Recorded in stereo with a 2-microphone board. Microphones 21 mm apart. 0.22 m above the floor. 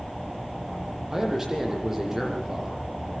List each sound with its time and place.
1.1 s a man speaking: 15° right (ahead or behind), 9.5 m